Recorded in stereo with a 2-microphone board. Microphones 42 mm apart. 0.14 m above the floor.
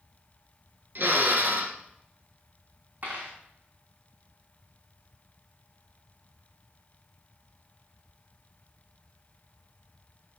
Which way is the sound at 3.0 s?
40° right (ahead or behind).